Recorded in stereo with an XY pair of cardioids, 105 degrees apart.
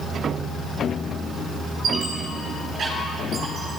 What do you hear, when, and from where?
1.8 s a squeak: 60° right, 8 m